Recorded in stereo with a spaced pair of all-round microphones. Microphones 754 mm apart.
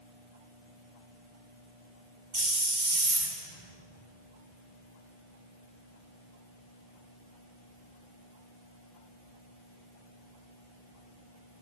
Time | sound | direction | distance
2.3 | a hiss | 75° right (ahead or behind) | 2.5 m